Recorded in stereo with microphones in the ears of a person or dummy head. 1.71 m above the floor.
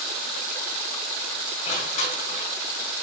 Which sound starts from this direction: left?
Crushing, at 1.6 s.